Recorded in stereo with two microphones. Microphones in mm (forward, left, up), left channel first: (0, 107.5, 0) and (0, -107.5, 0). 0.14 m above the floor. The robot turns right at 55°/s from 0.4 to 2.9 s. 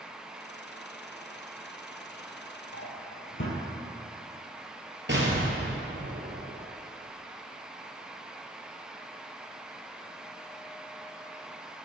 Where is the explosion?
60° right (ahead or behind), 3 m.